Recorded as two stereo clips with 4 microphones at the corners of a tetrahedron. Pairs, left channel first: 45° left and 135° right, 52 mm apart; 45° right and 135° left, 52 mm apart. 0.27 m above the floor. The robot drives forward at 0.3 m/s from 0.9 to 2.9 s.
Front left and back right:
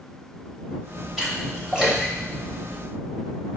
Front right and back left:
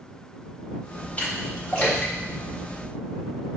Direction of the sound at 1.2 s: 60° right.